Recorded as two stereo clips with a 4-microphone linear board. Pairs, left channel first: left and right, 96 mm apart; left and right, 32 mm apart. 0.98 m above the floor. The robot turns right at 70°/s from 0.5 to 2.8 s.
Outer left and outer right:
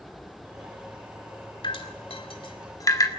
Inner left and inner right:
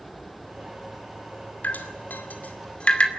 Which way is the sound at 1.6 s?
60° left (ahead or behind).